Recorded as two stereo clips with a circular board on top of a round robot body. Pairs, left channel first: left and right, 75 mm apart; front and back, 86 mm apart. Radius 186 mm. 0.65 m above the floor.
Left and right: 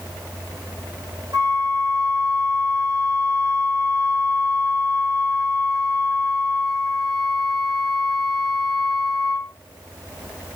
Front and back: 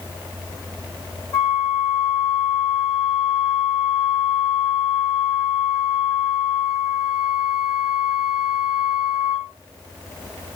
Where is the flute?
55° right, 0.8 m.